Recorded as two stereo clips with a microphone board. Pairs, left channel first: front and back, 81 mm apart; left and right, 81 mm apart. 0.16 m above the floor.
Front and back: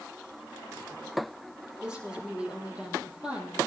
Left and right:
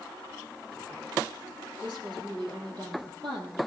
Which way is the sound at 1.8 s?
105° right.